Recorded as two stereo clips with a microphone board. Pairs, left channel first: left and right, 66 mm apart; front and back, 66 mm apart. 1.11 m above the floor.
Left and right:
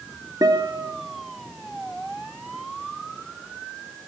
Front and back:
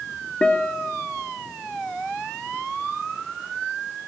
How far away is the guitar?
About 3 m.